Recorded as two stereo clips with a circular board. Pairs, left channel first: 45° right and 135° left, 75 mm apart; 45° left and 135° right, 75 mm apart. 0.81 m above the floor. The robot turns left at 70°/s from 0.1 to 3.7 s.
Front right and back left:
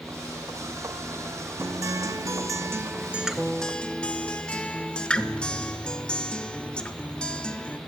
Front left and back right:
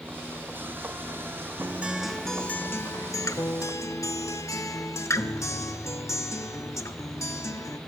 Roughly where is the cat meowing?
No cat meowing in this recording.